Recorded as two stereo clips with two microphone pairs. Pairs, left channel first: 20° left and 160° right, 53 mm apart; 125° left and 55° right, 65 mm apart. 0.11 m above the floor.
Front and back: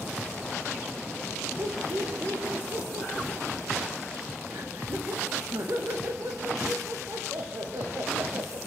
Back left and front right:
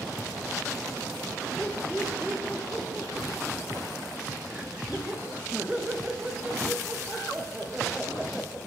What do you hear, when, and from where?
1.6 s laughter: 135° right, 7 m; by 8.6 s 125° right, 10.5 m